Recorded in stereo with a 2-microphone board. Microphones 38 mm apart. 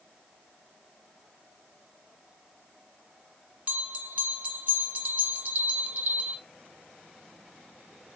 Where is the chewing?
No chewing in this recording.